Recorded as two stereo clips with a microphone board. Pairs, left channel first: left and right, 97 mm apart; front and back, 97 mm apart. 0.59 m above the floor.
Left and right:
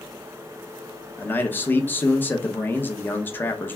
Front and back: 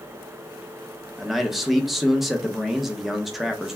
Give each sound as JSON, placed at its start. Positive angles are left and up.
{"t": 1.2, "sound": "a man speaking", "azimuth_deg": 95, "distance_m": 0.6}